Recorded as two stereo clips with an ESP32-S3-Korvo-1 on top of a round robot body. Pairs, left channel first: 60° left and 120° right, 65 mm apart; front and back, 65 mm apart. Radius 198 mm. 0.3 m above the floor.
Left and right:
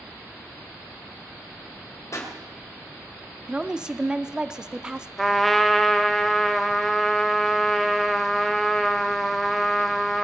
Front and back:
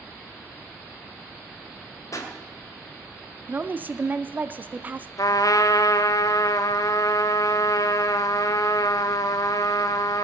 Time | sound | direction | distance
2.1 | a pop | 25° left | 2.5 m
3.5 | a woman speaking | 175° left | 0.9 m
5.2 | a trumpet | 25° right | 0.9 m